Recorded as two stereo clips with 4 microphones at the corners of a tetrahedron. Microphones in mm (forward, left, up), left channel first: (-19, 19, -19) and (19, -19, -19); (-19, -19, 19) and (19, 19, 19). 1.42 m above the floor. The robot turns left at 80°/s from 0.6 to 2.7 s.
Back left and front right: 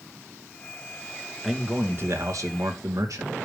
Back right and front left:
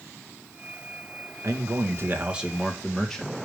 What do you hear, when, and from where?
1.4 s a man speaking: 45° left, 2.0 m; by 3.4 s 55° right, 2.0 m